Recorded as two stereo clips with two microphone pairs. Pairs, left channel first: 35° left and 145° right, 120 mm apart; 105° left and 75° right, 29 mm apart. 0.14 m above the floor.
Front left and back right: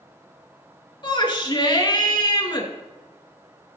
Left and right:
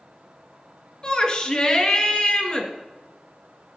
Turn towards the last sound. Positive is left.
turn(degrees=65)